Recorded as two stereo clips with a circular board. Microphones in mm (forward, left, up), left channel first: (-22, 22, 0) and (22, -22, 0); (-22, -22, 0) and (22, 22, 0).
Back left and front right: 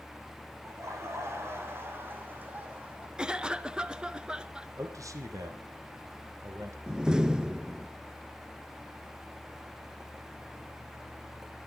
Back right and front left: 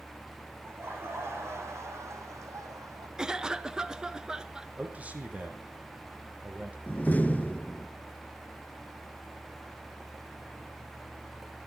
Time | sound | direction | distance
0.7 | laughter | 5° right | 5.5 m
3.2 | a cough | 5° right | 1.1 m
4.8 | a man speaking | 20° right | 4.5 m
6.9 | a door slam | 110° right | 1.0 m